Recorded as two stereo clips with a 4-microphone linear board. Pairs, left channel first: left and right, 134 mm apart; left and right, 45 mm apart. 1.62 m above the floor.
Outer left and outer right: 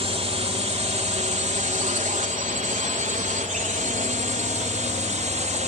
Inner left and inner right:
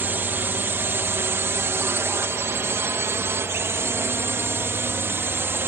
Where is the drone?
50° right (ahead or behind); by 5.7 s 65° right (ahead or behind).